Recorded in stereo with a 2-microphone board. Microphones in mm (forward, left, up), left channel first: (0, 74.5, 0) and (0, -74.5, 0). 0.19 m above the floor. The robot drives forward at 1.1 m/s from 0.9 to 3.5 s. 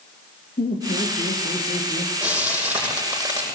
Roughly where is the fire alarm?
No fire alarm in this recording.